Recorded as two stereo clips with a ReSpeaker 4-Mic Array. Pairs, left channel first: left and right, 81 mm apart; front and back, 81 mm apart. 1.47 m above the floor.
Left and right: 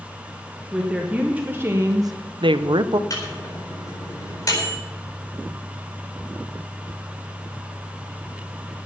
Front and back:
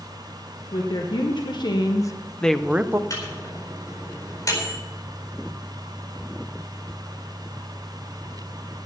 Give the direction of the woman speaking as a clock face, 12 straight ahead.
12 o'clock.